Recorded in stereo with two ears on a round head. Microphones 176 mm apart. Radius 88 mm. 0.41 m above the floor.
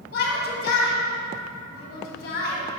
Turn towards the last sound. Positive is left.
turn(degrees=55)  # may be behind; listen again after turning